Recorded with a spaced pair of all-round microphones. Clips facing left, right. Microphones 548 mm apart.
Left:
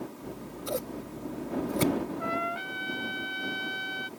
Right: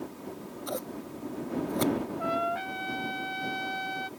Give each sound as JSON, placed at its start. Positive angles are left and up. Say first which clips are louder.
{"t": 0.2, "sound": "scissors", "louder": "left 1 dB", "side_deg": 50}
{"t": 2.2, "sound": "a trumpet", "louder": "right 2 dB", "side_deg": -15}